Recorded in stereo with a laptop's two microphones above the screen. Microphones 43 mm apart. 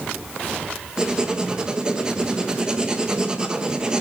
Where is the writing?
20° right (ahead or behind), 1.3 m.